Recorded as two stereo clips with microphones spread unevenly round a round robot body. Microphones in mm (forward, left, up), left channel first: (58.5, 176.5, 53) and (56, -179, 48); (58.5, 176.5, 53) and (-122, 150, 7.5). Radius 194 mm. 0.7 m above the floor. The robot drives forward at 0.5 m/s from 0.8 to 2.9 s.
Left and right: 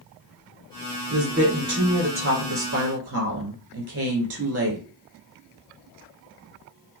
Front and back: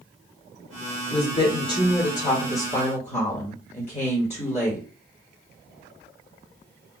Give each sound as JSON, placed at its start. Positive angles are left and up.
{"t": 1.1, "sound": "a woman speaking", "azimuth_deg": -35, "distance_m": 2.0}